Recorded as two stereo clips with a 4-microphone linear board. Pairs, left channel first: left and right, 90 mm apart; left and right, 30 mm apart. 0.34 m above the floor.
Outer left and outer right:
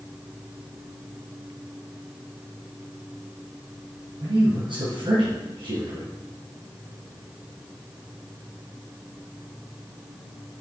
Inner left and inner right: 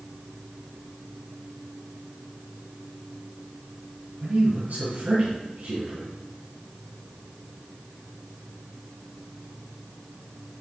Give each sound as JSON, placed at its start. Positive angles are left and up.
{"t": 4.2, "sound": "a man speaking", "side_deg": -65, "distance_m": 3.0}